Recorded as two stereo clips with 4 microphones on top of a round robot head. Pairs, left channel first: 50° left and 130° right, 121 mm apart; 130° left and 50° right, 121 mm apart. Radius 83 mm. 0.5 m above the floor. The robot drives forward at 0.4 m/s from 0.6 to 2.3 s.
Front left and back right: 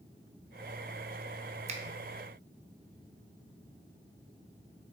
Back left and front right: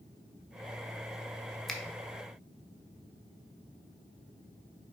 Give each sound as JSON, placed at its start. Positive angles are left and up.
{"t": 1.7, "sound": "a finger snap", "azimuth_deg": -140, "distance_m": 1.0}